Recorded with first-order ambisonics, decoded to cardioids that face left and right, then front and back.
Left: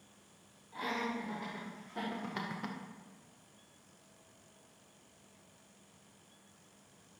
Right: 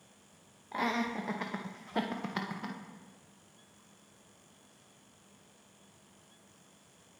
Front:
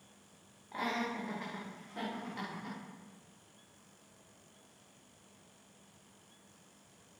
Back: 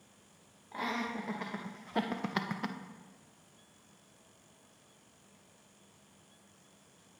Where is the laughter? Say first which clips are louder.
Right 4 dB, even; 90° right, 1.0 m; by 2.8 s 175° left, 0.6 m.